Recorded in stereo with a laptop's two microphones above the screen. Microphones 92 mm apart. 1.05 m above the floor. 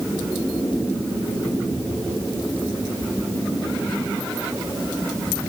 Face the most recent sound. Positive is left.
No sound to turn to.